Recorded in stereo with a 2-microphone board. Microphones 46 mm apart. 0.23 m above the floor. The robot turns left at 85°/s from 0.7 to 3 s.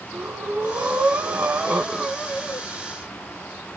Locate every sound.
0.1 s breathing: 60° right, 0.9 m; by 2.7 s 130° left, 0.9 m